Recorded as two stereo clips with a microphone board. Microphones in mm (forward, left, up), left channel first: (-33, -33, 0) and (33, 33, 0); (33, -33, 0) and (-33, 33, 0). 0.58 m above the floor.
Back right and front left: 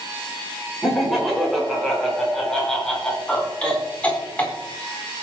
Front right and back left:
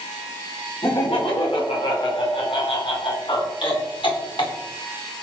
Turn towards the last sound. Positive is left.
turn(degrees=-65)